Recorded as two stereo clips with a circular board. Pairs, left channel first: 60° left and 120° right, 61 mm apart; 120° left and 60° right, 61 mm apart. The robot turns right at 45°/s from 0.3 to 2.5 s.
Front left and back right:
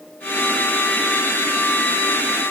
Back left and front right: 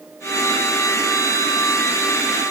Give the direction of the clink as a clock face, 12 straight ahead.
I don't hear a clink.